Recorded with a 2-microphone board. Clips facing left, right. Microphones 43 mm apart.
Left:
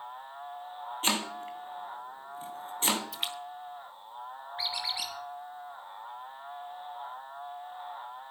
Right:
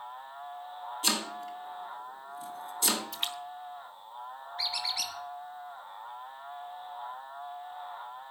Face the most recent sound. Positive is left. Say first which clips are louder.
# even
turn(degrees=25)  # may be behind; listen again after turning